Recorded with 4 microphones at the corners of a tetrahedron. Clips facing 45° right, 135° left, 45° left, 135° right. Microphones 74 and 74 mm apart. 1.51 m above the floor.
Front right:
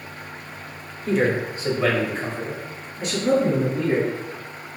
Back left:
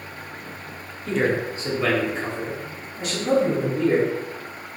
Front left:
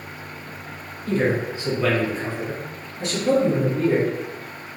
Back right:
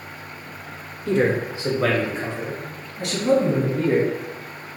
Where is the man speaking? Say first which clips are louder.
Front right 1 dB, back right 2 dB; 130° right, 0.6 m.